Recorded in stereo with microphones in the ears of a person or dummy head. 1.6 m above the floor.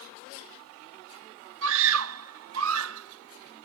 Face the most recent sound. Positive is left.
turn(degrees=-65)  # may be behind; listen again after turning